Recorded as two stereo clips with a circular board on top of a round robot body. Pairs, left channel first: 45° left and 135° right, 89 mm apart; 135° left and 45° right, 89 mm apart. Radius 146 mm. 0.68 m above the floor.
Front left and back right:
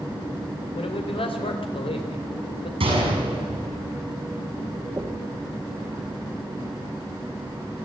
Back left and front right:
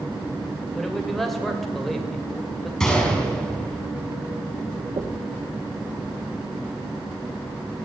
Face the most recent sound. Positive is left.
turn(degrees=-75)